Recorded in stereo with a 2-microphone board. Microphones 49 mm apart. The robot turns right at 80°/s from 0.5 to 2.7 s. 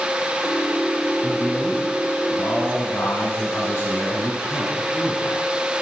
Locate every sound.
1.2 s a man speaking: 45° right, 1.9 m; by 5.5 s 70° left, 1.9 m